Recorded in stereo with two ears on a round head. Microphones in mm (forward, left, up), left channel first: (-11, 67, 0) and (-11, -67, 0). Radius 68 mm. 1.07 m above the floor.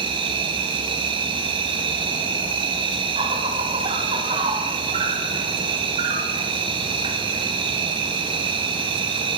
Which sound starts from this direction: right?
An insect, at 0.0 s.